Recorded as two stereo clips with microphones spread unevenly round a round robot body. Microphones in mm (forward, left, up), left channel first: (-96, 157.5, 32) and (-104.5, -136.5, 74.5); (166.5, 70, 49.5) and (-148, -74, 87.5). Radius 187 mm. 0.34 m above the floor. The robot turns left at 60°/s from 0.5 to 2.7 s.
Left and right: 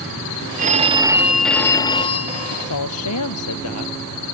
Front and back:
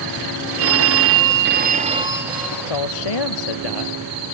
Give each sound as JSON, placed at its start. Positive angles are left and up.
{"t": 0.6, "sound": "a phone ringing", "azimuth_deg": -145}
{"t": 2.5, "sound": "a man speaking", "azimuth_deg": 55}